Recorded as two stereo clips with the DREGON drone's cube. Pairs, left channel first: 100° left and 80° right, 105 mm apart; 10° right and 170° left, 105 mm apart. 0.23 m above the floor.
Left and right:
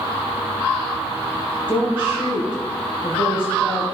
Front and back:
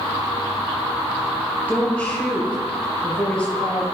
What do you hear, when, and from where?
1.7 s a woman speaking: 65° left, 4 m